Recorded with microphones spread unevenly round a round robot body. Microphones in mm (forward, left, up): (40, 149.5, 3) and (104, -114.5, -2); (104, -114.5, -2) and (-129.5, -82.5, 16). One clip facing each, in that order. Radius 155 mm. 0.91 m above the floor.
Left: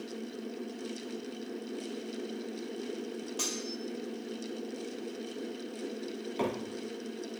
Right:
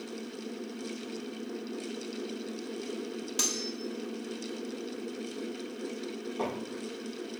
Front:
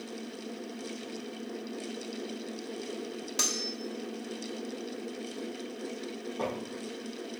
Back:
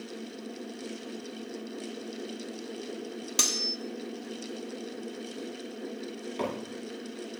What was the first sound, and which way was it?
Cutlery clinking, 140° right.